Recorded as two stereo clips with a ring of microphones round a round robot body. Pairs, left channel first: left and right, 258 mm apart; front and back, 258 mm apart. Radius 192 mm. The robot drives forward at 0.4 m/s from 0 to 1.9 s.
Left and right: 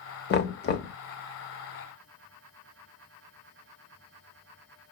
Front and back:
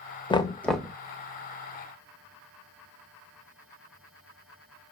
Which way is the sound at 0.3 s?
65° left.